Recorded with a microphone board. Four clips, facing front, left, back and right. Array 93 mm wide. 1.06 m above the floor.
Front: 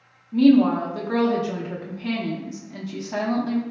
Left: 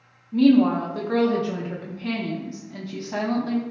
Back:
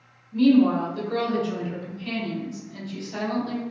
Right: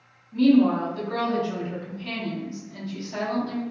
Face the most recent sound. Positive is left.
turn(degrees=45)